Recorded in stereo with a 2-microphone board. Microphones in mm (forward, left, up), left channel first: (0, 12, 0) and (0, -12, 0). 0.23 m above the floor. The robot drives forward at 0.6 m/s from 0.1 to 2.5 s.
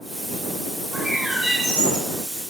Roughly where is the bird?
Right.